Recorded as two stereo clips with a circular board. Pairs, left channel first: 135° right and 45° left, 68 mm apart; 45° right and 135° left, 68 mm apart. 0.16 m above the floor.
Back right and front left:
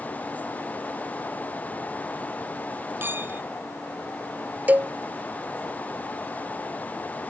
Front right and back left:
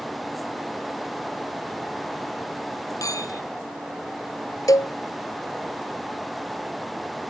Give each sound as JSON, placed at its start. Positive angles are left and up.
{"t": 3.0, "sound": "a clink", "azimuth_deg": -15}
{"t": 4.7, "sound": "a cowbell", "azimuth_deg": -20}